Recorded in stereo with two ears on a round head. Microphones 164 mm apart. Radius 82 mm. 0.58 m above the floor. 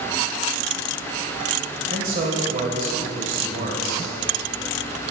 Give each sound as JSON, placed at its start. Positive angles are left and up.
{"t": 1.9, "sound": "a man speaking", "side_deg": -50, "distance_m": 1.9}